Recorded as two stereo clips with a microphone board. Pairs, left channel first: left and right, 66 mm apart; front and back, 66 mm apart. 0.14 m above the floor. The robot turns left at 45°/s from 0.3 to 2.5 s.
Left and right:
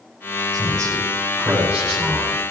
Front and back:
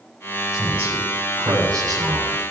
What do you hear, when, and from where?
0.5 s a man speaking: 115° right, 6.5 m; by 2.4 s 160° left, 6.5 m